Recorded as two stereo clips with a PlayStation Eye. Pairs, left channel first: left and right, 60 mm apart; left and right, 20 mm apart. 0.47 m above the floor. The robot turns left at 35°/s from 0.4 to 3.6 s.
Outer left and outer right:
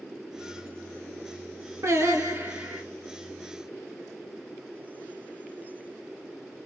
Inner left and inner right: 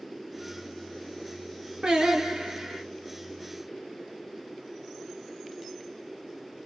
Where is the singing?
125° right, 2.0 m; by 2.8 s 160° right, 2.0 m.